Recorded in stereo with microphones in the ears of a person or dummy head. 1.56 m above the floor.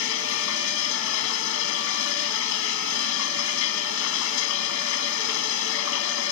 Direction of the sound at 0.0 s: 75° left (ahead or behind).